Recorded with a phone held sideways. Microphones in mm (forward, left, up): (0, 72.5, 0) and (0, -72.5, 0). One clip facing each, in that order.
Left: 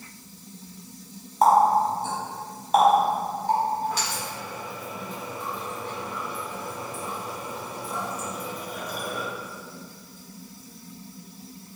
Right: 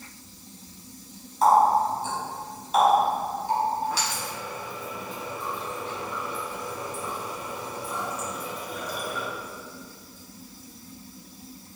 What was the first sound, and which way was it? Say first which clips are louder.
A running tap: left 1 dB; 55° left (ahead or behind).